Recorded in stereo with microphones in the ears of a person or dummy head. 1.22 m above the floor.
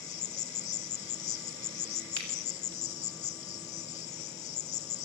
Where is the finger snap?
80° right, 8 m.